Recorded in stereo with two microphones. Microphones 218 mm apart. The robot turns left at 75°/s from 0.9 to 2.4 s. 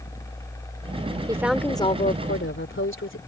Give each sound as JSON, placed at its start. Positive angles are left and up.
{"t": 1.3, "sound": "a woman speaking", "azimuth_deg": -160}